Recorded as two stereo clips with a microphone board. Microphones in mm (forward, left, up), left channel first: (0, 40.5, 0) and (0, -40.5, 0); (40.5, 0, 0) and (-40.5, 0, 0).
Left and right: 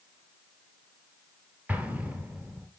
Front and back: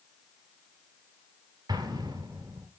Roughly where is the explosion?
Behind.